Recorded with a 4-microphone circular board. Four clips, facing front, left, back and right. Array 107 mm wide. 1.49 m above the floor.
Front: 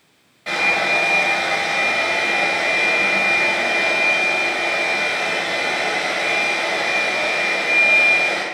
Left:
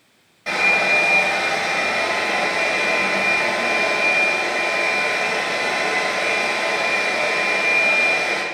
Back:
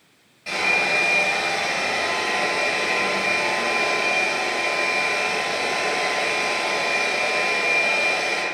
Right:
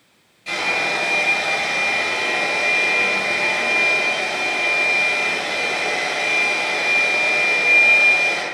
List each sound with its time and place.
0.5 s a hair dryer: 55° left, 9 m